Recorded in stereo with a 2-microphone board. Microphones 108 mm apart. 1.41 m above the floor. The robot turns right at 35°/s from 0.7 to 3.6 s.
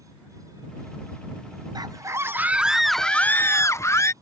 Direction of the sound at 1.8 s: 40° right.